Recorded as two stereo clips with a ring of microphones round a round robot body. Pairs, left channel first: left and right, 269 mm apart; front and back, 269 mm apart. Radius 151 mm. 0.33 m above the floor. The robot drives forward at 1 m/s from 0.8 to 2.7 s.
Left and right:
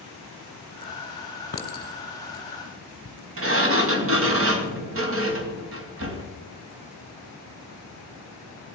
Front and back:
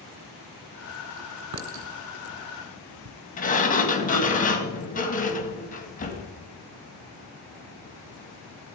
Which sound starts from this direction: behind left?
A clink, at 1.5 s.